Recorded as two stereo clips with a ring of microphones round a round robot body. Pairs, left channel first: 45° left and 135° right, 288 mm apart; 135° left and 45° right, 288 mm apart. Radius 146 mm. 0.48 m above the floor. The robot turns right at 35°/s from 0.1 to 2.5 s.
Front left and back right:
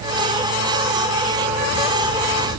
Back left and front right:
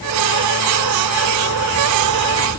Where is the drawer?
No drawer in this recording.